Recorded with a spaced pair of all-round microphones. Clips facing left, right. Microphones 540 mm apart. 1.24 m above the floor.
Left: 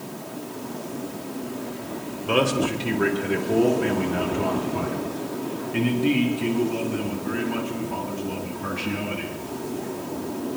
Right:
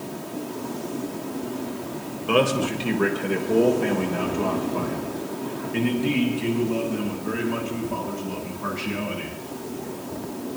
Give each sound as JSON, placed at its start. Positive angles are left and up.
{"t": 2.3, "sound": "a man speaking", "side_deg": 0, "distance_m": 4.0}